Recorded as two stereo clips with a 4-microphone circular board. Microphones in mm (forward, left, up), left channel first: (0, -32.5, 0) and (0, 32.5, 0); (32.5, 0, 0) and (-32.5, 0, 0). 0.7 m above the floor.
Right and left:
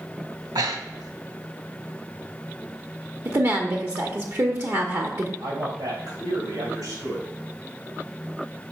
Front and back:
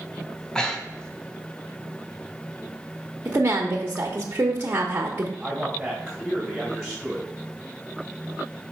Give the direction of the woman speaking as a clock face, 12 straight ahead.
8 o'clock.